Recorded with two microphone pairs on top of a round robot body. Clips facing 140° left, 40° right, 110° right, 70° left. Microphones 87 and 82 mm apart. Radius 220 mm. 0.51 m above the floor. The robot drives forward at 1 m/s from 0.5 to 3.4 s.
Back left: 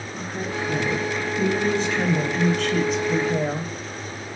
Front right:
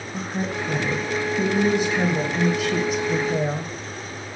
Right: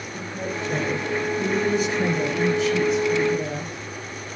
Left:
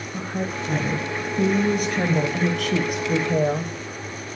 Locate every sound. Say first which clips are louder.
0.1 s a woman speaking: front right 2 dB, left 2 dB; 30° left, 6 m; by 3.7 s 50° left, 4 m